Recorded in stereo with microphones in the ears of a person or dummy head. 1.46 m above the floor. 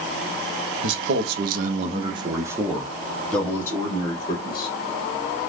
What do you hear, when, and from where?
0.8 s a man speaking: 65° right (ahead or behind), 1.0 m; by 4.7 s 35° left (ahead or behind), 1.7 m